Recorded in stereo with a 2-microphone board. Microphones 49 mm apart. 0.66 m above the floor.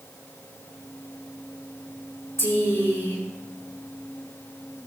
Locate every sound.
2.4 s a woman speaking: 75° left (ahead or behind), 6 m